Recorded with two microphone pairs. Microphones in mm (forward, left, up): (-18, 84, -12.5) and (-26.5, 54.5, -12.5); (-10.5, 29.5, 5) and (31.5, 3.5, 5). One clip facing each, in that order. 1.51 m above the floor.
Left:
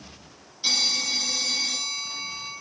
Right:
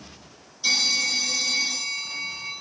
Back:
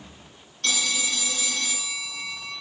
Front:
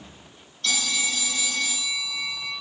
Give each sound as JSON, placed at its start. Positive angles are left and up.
{"t": 0.6, "sound": "a phone ringing", "azimuth_deg": 135, "distance_m": 2.0}